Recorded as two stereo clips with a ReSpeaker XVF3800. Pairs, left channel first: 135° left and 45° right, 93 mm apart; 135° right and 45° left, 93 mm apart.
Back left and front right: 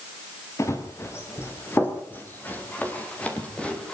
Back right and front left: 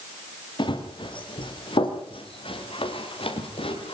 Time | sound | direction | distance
0.6 | running footsteps | 165° right | 5 m